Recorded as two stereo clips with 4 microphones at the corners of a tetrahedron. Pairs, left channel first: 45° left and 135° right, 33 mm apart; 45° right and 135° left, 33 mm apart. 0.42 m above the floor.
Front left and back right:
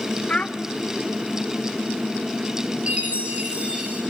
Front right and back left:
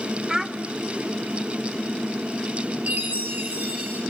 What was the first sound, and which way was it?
A child speaking, 65° left.